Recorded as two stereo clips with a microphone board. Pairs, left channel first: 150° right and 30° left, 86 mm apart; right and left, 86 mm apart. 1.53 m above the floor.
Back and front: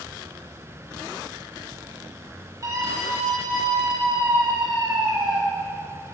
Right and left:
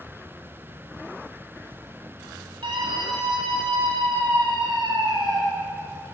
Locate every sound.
2.6 s a scream: 80° left, 4 m; by 5.4 s 60° left, 3 m